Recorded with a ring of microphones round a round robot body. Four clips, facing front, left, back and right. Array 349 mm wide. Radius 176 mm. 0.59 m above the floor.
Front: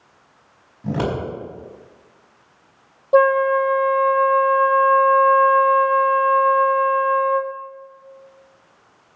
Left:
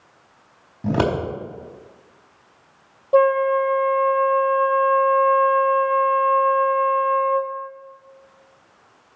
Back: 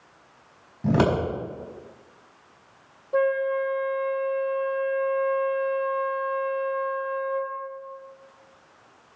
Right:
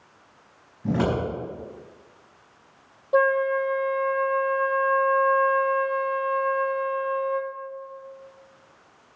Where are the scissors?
115° left, 5 m.